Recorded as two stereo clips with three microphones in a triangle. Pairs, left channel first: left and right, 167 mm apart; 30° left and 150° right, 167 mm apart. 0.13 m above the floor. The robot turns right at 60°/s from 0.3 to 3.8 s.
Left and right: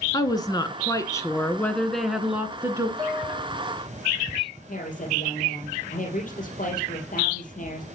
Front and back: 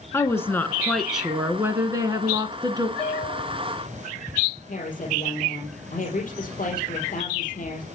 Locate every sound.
0.1 s a woman speaking: 75° left, 1.3 m; by 2.9 s 130° right, 1.3 m
3.0 s a piano: 25° right, 3.5 m; by 3.5 s 5° left, 3.5 m
4.7 s a woman speaking: 60° left, 3.5 m